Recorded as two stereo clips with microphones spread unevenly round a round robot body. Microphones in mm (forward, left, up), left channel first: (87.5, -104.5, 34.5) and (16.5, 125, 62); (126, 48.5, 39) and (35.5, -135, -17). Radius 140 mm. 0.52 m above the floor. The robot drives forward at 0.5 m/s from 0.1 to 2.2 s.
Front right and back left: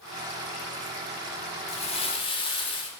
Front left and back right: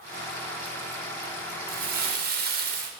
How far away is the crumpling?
About 1.2 m.